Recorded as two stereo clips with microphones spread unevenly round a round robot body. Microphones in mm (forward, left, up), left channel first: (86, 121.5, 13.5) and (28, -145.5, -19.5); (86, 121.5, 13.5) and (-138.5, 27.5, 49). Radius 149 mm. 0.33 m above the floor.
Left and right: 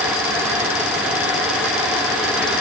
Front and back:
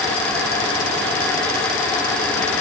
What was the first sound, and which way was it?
Only background noise.